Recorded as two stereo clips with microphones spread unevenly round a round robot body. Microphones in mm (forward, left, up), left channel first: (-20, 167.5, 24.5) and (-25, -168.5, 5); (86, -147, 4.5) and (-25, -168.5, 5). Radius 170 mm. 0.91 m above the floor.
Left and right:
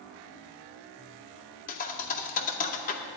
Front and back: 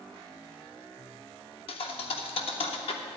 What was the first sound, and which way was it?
A thud, 30° left.